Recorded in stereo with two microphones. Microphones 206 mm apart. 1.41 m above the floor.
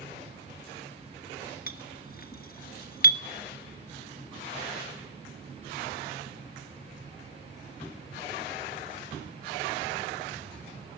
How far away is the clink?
About 1.2 m.